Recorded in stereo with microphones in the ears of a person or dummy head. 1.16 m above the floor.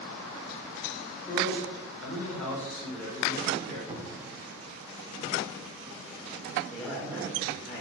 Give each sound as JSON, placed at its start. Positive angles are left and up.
{"t": 1.2, "sound": "a man speaking", "side_deg": 10, "distance_m": 3.5}
{"t": 3.9, "sound": "a cupboard door", "side_deg": -20, "distance_m": 0.8}
{"t": 6.7, "sound": "a man speaking", "side_deg": 5, "distance_m": 1.8}